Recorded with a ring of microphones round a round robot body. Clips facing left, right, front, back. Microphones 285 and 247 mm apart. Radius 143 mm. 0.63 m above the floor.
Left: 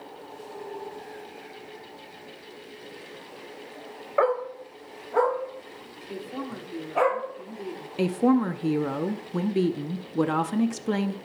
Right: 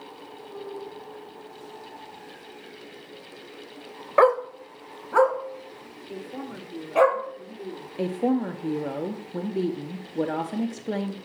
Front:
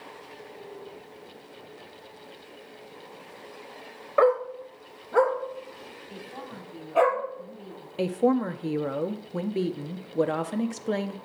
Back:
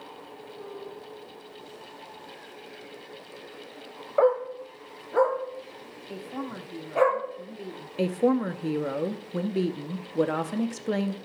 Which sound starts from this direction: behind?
A woman speaking, at 6.1 s.